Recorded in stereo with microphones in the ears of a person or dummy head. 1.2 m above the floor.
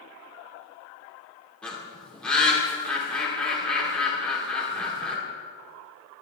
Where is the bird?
10° left (ahead or behind), 3 m.